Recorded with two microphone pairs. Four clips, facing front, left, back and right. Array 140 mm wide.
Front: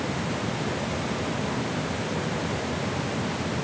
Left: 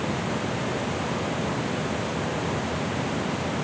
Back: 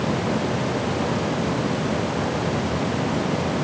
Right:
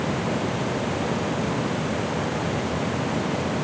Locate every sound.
Only background noise.